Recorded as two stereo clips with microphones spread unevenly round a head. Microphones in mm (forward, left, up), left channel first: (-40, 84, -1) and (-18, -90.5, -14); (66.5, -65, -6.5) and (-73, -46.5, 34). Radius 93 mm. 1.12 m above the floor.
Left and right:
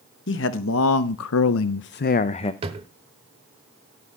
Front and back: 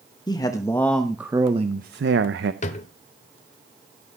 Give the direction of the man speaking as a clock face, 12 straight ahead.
10 o'clock.